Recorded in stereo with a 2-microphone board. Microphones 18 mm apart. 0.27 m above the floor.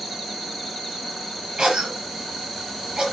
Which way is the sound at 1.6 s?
60° right (ahead or behind).